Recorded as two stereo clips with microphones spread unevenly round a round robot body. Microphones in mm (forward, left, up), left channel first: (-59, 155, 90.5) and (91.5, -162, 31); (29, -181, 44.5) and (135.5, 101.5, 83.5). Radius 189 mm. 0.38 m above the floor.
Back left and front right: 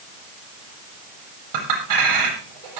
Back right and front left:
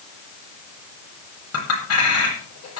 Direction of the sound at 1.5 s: 75° right.